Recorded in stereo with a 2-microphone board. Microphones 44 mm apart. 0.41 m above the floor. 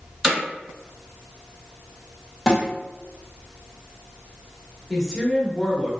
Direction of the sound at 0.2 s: 10° right (ahead or behind).